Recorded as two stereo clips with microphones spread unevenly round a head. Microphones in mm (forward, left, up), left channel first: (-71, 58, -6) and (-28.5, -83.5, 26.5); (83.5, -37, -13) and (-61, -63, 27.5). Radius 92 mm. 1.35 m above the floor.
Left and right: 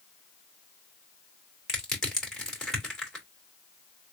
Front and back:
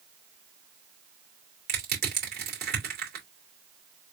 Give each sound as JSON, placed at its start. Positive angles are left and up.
{"t": 1.7, "sound": "crushing", "azimuth_deg": -165, "distance_m": 3.0}